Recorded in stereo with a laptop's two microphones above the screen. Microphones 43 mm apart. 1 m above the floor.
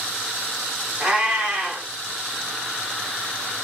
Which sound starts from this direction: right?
A cat meowing, at 1.0 s.